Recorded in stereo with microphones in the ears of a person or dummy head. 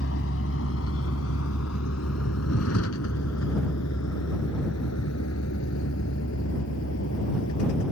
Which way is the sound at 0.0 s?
70° left (ahead or behind).